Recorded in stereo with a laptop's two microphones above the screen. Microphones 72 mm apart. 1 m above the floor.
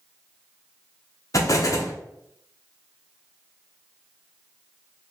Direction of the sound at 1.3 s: 50° left (ahead or behind).